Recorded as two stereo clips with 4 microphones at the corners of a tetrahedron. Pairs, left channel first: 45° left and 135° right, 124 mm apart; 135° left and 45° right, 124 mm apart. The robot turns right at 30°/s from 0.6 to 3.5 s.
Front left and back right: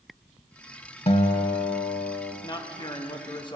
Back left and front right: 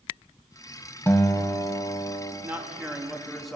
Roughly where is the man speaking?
Ahead.